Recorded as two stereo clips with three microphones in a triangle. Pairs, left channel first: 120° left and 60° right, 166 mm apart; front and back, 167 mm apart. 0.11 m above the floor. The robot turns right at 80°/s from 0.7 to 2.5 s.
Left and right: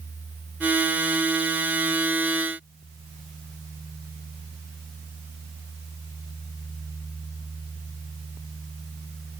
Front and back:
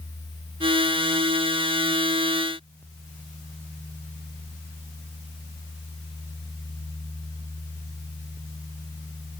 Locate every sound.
Only background noise.